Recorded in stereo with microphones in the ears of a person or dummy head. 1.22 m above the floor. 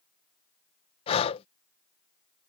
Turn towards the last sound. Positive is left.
turn(degrees=30)  # may be behind; listen again after turning